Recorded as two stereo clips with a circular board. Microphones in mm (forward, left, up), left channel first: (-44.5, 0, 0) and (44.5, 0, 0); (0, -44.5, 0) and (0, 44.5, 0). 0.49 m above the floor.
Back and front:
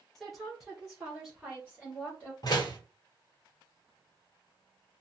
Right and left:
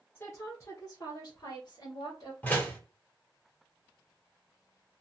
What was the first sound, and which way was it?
A woman speaking, 100° right.